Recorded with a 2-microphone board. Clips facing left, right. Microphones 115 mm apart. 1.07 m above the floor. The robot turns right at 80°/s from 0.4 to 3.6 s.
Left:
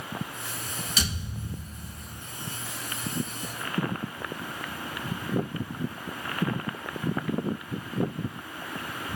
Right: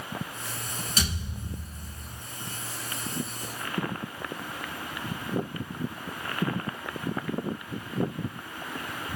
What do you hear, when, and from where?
1.0 s a thud: 45° right, 1.6 m; by 2.2 s 50° left, 1.6 m